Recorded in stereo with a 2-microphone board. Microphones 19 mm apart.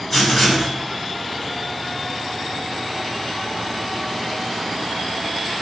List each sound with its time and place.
0.1 s writing: 5° left (ahead or behind), 1.8 m